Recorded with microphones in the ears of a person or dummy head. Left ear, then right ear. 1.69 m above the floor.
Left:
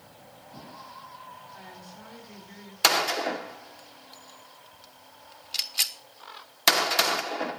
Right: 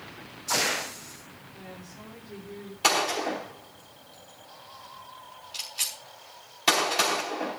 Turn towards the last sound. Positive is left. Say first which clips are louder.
# left 1 dB
turn(degrees=35)  # may be behind; listen again after turning